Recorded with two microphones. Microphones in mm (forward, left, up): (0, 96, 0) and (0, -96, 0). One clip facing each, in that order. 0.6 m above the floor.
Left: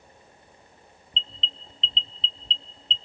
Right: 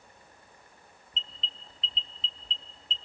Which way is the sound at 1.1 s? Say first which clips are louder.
Left 6 dB; 25° left (ahead or behind).